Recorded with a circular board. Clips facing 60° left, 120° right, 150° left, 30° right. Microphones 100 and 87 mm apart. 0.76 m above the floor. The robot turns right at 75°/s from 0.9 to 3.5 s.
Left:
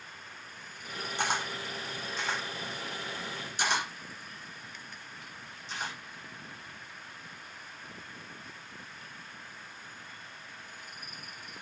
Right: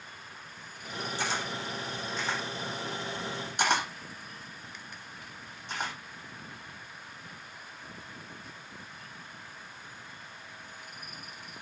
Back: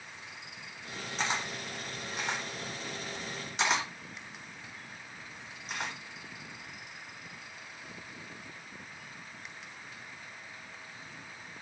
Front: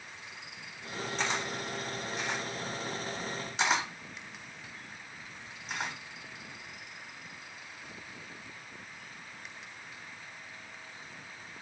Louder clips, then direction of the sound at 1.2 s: Left 3 dB, back 1 dB; 65° left.